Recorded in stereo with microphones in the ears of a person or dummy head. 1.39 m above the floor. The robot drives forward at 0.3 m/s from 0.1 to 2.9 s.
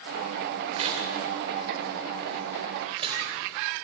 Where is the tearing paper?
40° right (ahead or behind), 3 m; by 3.2 s 35° right (ahead or behind), 3.5 m.